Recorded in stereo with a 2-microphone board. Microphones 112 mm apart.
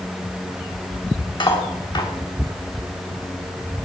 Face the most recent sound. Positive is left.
turn(degrees=45)  # may be behind; listen again after turning